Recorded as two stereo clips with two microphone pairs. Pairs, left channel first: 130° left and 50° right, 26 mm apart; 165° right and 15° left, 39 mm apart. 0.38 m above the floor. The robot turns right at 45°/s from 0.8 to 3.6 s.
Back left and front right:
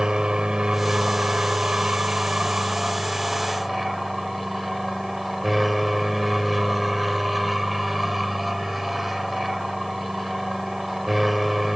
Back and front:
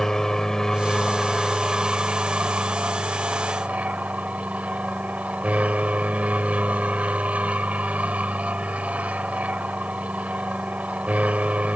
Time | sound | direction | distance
0.0 | an aircraft | 95° right | ?